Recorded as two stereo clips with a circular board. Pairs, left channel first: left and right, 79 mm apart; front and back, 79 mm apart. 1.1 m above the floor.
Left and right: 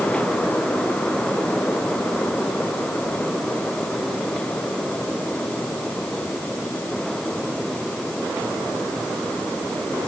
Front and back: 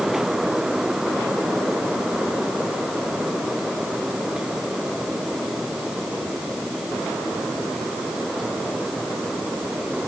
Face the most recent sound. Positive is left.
No sound to turn to.